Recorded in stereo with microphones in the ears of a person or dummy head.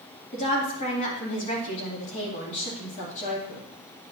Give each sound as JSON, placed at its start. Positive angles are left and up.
{"t": 0.3, "sound": "a woman speaking", "side_deg": 45, "distance_m": 2.5}